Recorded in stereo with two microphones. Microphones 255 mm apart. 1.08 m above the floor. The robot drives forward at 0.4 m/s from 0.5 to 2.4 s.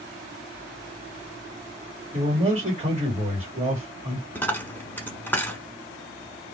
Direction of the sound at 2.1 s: 30° right (ahead or behind).